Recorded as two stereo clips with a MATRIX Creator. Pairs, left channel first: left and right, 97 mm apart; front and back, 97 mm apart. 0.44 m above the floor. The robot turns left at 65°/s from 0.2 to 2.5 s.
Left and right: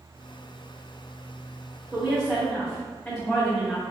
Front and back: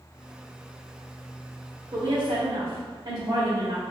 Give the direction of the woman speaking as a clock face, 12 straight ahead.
6 o'clock.